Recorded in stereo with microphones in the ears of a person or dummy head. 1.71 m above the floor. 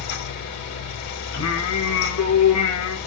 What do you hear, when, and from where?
0.0 s a fan: 70° left (ahead or behind), 3 m
1.3 s singing: 85° left, 1.9 m